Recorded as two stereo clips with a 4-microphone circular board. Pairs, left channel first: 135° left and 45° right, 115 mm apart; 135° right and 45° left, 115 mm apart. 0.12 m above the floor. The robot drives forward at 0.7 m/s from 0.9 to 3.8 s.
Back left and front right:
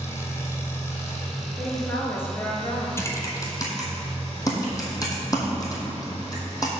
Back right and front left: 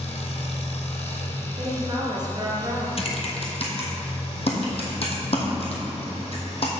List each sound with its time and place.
0.0 s an engine running: 160° right, 1.4 m; by 6.8 s 170° right, 3.5 m
1.6 s a woman speaking: 55° left, 1.7 m; by 2.9 s 100° left, 1.6 m
3.0 s typing on a keyboard: 160° right, 1.1 m; by 6.7 s 165° right, 1.6 m